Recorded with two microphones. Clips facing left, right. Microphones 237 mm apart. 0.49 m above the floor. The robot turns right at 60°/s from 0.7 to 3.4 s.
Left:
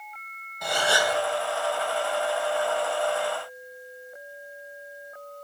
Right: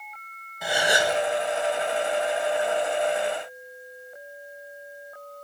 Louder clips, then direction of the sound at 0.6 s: Right 2 dB; 5° right (ahead or behind).